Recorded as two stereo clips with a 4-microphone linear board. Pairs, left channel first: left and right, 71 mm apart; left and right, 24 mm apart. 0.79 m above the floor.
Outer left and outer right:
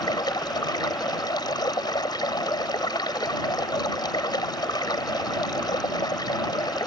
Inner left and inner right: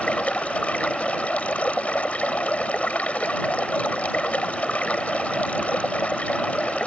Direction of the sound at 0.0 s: 85° left.